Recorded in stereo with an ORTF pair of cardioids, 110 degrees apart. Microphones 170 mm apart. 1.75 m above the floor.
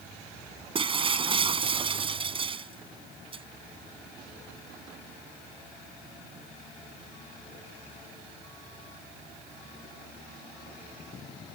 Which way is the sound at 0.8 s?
30° right.